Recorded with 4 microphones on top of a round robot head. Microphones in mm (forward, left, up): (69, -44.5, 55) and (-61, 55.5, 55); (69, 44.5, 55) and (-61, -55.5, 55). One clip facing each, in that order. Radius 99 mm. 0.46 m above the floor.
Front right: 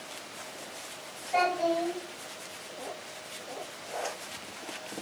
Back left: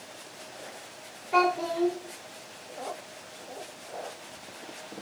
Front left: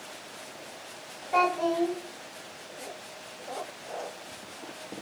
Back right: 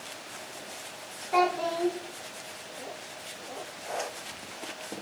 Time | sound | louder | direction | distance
1.3 | a child speaking | back left 1 dB, front left 1 dB | 160° left | 3.5 m